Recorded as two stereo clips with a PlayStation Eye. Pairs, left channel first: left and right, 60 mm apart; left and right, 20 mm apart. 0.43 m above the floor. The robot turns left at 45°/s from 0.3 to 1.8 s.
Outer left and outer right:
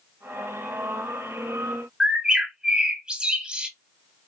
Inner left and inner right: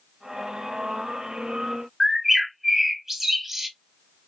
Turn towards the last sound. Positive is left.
turn(degrees=-15)  # may be behind; listen again after turning